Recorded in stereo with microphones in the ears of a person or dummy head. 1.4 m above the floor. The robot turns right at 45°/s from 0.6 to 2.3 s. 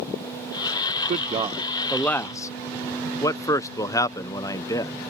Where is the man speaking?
35° right (ahead or behind); by 5.0 s 15° left (ahead or behind).